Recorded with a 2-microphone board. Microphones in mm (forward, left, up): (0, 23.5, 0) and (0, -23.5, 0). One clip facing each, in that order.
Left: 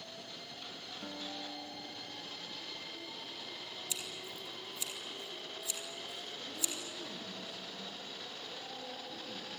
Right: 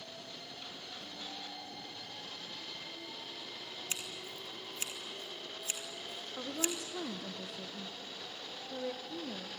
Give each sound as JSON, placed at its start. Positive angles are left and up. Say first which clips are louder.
{"t": 1.0, "sound": "a guitar", "louder": "left 5 dB", "side_deg": 40, "distance_m": 1.8}
{"t": 3.9, "sound": "scissors", "louder": "right 1 dB", "side_deg": -50, "distance_m": 3.0}
{"t": 6.4, "sound": "a woman speaking", "louder": "right 8 dB", "side_deg": -70, "distance_m": 1.3}